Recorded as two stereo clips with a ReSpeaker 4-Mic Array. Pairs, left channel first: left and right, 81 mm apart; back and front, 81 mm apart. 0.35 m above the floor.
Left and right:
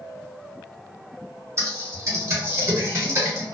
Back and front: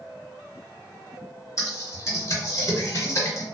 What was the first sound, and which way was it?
Typing on a keyboard, 140° right.